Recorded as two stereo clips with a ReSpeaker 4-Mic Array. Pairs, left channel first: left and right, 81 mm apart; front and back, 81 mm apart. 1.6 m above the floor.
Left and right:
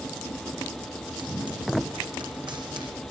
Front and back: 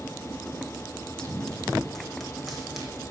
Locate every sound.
1.2 s running footsteps: 80° right, 6.5 m; by 2.9 s 95° right, 5.5 m